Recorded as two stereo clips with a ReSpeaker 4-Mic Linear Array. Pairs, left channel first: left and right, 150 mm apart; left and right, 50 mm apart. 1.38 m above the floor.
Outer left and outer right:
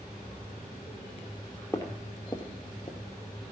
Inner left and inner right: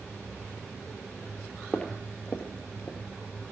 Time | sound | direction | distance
1.7 | footsteps | 20° left (ahead or behind) | 2.0 m